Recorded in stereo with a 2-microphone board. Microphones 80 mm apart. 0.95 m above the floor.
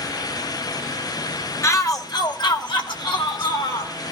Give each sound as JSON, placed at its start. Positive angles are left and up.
{"t": 1.6, "sound": "a shout", "side_deg": 40, "distance_m": 1.3}